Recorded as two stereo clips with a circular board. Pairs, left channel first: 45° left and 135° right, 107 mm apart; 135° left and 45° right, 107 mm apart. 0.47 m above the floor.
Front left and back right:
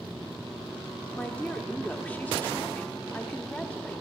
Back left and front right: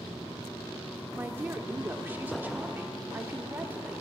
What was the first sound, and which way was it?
A woman speaking, 5° right.